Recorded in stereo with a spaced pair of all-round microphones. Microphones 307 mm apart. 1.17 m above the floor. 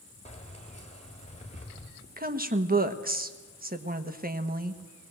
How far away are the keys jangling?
About 3 m.